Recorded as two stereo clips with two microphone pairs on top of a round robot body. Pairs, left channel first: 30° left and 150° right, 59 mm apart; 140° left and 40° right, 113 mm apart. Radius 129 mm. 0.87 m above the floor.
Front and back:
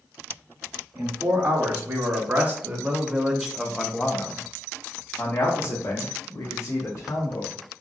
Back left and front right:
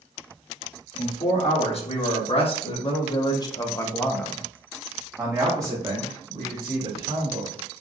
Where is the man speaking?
160° left, 2.5 m; by 7.5 s 5° left, 2.5 m.